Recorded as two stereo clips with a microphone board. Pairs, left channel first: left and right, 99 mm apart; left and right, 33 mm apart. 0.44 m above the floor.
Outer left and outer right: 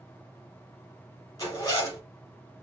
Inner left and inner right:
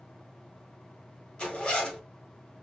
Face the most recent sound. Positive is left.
turn(degrees=35)  # may be behind; listen again after turning